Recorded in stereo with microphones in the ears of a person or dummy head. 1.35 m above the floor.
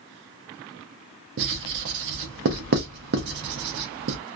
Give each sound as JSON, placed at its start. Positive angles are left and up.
{"t": 1.4, "sound": "writing", "side_deg": -45, "distance_m": 0.5}